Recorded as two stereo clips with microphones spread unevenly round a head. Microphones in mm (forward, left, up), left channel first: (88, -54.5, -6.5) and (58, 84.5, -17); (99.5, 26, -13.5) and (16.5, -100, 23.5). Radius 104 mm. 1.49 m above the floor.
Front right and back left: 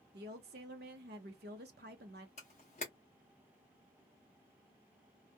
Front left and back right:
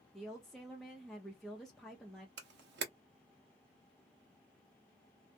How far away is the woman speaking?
About 0.6 m.